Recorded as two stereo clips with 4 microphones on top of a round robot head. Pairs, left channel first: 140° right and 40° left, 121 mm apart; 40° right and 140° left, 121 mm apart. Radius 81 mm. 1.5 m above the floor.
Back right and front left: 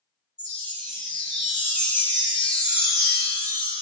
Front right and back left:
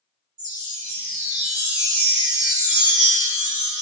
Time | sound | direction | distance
0.4 | a chime | 125° left | 2.0 m